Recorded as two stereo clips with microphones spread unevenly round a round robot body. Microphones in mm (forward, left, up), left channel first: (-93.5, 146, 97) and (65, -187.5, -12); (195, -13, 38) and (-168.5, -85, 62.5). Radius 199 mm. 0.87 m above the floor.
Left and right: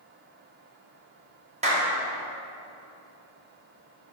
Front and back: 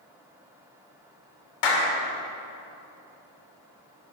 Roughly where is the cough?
No cough in this recording.